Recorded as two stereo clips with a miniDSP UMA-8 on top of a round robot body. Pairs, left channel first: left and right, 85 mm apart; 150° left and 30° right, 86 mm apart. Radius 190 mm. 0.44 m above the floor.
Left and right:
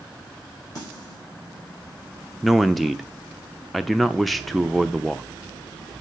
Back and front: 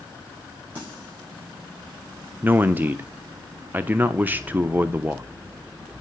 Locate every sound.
0.8 s a snare drum: 40° left, 7 m
2.4 s a man speaking: straight ahead, 0.8 m